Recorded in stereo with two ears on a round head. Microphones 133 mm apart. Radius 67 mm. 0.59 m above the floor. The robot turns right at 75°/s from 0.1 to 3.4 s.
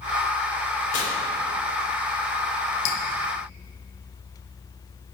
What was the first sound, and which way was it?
Tearing paper, 60° left (ahead or behind).